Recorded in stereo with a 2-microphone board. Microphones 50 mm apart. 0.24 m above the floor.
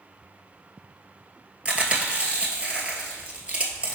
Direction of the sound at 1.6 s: 20° right (ahead or behind).